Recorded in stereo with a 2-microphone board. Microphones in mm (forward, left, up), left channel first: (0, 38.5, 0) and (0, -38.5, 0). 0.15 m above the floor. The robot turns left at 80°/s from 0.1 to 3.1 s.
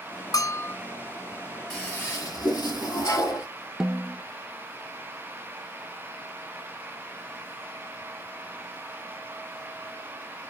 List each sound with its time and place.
0.3 s a bell: 55° left, 0.5 m; by 0.8 s 25° left, 0.5 m
1.7 s a toilet flushing: 175° left, 3 m; by 3.5 s 65° left, 3 m
3.8 s a snare drum: 5° right (ahead or behind), 0.5 m